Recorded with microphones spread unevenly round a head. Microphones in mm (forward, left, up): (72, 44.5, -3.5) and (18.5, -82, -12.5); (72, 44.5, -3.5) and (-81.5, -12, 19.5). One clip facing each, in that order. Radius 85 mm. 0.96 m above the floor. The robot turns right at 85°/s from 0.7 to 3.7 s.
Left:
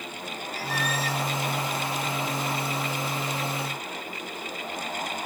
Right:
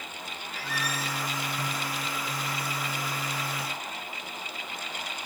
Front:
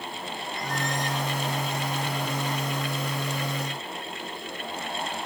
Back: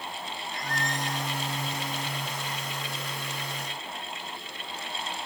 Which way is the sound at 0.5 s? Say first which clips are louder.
Left 4 dB, front 3 dB; 15° left.